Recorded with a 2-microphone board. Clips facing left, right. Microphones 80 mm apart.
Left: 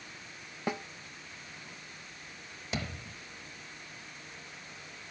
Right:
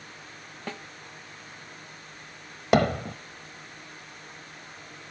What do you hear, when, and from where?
0.7 s a snare drum: 15° left (ahead or behind)
2.7 s hammering: 65° right (ahead or behind)